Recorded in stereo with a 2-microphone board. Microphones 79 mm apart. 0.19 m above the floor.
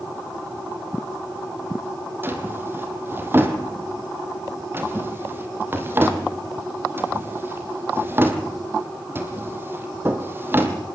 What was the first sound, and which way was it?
A drawer, 25° right (ahead or behind).